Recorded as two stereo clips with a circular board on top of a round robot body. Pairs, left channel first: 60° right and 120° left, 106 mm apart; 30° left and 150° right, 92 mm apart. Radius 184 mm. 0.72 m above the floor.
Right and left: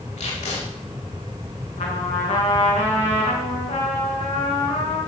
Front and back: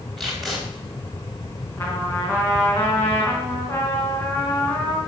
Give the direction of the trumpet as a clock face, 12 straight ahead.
1 o'clock.